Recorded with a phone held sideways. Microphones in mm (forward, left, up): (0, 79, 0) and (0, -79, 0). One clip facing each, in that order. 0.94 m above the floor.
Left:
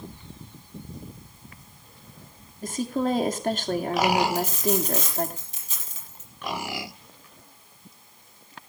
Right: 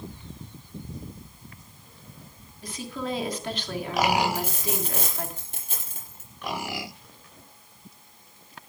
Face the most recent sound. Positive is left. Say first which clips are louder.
# left 6 dB
turn(degrees=-55)  # may be behind; listen again after turning